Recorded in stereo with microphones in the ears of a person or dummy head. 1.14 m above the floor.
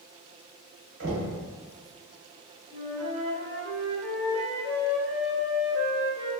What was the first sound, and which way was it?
Knocking, 70° right (ahead or behind).